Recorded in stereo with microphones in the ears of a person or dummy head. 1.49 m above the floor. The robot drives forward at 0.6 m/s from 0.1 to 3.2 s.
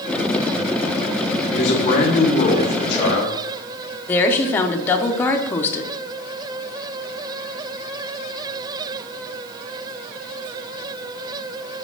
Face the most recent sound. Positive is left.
turn(degrees=10)  # may be behind; listen again after turning